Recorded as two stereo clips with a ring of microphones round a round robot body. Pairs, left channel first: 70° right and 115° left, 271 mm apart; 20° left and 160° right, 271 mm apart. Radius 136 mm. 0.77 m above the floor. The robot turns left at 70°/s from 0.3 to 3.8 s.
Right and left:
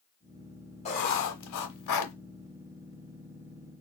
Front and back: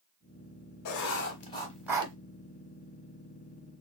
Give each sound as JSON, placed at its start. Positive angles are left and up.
{"t": 0.8, "sound": "writing", "azimuth_deg": 0, "distance_m": 1.1}